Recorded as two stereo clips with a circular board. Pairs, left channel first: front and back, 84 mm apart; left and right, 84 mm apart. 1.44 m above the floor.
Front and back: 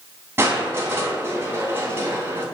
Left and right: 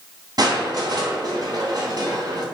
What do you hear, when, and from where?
0.4 s crushing: 120° right, 3 m